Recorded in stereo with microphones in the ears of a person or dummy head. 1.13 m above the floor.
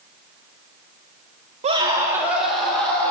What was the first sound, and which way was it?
A scream, 30° right (ahead or behind).